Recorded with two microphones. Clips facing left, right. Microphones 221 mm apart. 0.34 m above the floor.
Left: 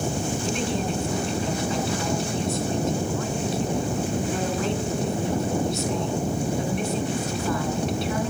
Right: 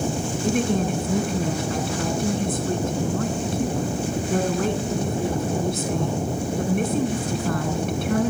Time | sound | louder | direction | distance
0.4 | a woman speaking | right 9 dB | 55° right (ahead or behind) | 4 m